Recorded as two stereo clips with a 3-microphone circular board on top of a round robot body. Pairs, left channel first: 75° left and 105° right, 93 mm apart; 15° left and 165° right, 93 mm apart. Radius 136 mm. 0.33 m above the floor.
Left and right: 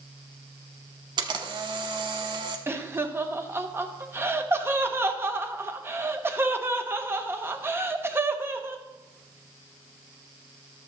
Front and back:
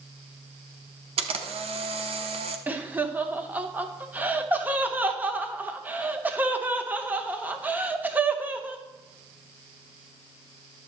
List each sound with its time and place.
1.2 s a camera shutter: 145° right, 0.8 m
2.7 s laughter: 120° right, 1.2 m